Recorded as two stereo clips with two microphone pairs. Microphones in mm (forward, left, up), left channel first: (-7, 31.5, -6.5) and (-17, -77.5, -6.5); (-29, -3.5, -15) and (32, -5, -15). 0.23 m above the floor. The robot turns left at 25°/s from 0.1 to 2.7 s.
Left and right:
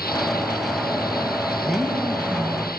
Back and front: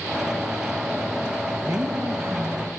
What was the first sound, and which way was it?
A woman speaking, 5° right.